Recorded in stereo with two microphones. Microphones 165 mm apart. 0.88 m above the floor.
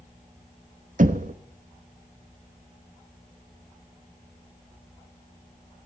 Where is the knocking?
55° right (ahead or behind), 0.8 m.